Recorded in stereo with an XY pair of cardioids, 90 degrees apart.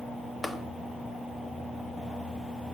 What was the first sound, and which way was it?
Tapping, 20° left.